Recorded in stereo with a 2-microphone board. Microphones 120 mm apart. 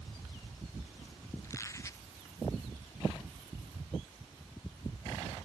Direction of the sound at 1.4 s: 25° left (ahead or behind).